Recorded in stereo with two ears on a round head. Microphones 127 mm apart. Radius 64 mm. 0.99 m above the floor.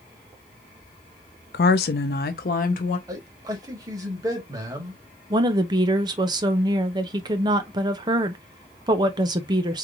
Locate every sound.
1.5 s a woman speaking: 65° left (ahead or behind), 0.6 m; by 3.0 s 60° left (ahead or behind), 1.0 m
3.1 s a man speaking: 25° right (ahead or behind), 1.3 m
5.3 s a woman speaking: 30° right (ahead or behind), 0.6 m